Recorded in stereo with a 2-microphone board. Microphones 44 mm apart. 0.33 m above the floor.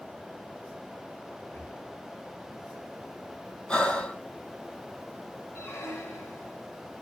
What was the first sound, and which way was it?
Breathing, 65° left (ahead or behind).